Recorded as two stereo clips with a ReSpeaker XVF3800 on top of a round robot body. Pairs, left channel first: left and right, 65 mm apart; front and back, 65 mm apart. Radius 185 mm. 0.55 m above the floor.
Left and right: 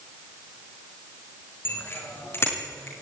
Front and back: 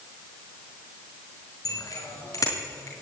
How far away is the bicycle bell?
About 6 m.